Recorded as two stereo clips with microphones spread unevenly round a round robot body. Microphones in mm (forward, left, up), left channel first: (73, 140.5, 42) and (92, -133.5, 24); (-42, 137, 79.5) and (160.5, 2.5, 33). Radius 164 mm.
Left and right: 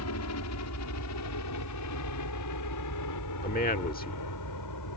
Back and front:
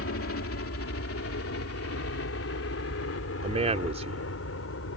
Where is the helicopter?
120° left; by 5.0 s 115° left.